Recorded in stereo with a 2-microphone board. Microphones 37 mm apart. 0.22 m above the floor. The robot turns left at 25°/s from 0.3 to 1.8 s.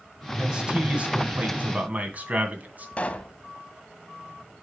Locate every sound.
0.4 s a man speaking: 25° right, 2 m; by 2.9 s 60° right, 2 m
3.0 s a pop: 30° left (ahead or behind), 0.8 m